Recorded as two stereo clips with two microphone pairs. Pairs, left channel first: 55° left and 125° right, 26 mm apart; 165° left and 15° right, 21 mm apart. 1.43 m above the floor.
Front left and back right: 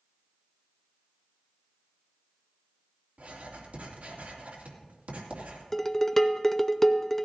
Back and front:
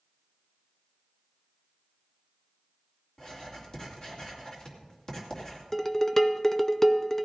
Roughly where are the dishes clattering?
Behind left.